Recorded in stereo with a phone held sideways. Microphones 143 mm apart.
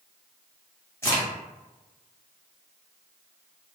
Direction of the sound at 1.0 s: 20° left (ahead or behind).